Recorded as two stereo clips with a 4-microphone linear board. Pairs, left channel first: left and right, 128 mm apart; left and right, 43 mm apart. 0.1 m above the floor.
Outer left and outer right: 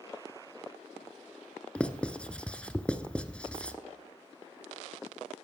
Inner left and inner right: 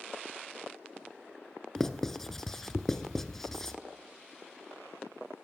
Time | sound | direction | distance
1.8 | writing | 10° left (ahead or behind) | 1.1 m